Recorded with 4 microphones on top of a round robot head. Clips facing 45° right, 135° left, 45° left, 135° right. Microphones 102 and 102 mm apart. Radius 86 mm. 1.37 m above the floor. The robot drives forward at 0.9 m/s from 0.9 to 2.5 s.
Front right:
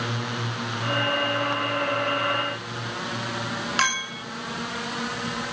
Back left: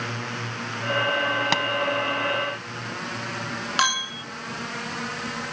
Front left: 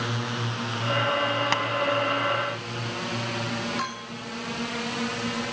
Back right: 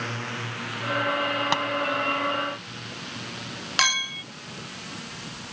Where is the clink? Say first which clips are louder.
Back left 3 dB, back right 3 dB; 150° right.